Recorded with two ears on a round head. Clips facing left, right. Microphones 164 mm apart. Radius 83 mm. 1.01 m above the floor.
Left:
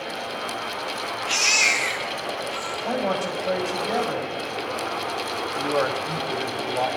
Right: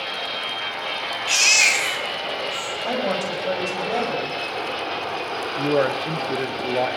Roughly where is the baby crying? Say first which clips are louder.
Right 1 dB; right.